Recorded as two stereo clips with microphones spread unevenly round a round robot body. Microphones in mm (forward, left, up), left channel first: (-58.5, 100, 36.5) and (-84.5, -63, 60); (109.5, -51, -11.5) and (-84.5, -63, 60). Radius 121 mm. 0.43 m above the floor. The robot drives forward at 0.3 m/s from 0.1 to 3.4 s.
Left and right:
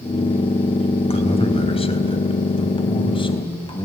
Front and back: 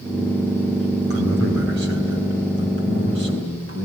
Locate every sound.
1.1 s a man speaking: 130° left, 3.5 m; by 3.9 s 140° left, 4 m